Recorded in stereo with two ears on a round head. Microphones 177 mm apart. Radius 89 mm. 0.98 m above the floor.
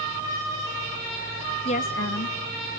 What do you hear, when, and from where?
1.6 s a woman speaking: 25° left (ahead or behind), 0.6 m; by 2.8 s 75° left (ahead or behind), 1.4 m